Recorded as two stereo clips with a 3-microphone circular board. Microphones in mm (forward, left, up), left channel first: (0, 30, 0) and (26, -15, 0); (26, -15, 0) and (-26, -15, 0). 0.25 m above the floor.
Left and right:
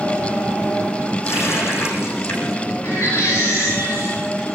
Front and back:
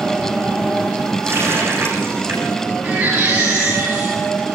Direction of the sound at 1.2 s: 145° left.